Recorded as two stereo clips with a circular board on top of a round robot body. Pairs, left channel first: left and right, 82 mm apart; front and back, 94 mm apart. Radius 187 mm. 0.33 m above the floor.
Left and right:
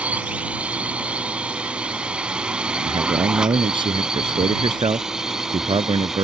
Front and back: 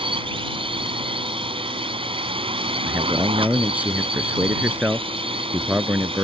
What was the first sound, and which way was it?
A drone, 165° right.